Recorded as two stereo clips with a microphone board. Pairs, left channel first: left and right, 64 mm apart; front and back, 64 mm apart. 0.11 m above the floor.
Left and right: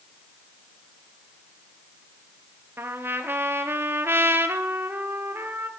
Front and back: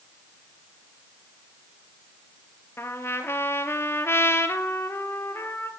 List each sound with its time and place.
2.8 s a trumpet: 45° right, 0.8 m